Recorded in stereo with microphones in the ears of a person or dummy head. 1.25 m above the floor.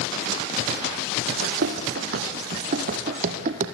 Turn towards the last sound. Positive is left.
turn(degrees=-50)  # may be behind; listen again after turning